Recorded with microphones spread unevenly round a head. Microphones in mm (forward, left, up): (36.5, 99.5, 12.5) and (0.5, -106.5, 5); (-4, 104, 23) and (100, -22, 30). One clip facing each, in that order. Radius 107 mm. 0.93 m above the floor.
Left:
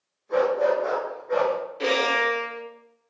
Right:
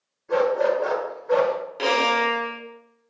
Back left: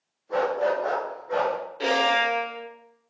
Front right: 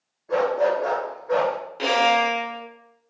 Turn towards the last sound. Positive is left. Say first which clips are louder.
# right 1 dB, front right 4 dB
turn(degrees=-95)